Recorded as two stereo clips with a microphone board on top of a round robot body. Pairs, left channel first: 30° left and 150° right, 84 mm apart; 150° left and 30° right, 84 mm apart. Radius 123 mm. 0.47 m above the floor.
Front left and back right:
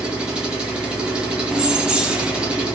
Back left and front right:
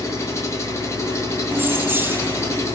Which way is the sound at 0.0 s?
140° left.